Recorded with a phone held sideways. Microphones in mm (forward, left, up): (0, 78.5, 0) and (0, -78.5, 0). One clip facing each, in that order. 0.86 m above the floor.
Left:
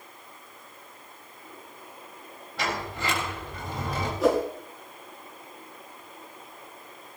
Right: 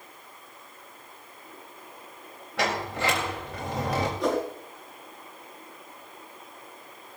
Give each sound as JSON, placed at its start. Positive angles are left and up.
{"t": 2.6, "sound": "a sliding door", "side_deg": -80, "distance_m": 3.5}
{"t": 4.2, "sound": "a whoosh", "side_deg": 5, "distance_m": 6.0}